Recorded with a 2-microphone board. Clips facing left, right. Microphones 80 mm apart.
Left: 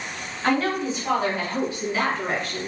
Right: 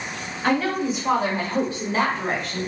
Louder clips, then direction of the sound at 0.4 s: Right 1 dB; centre (ahead or behind).